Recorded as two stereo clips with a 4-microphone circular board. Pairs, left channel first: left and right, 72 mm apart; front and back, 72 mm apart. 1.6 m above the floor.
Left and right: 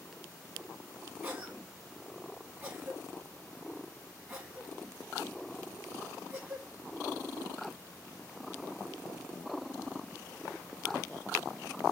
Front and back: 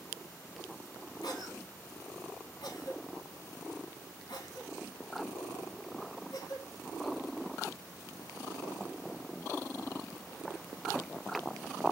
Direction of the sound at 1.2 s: 30° right.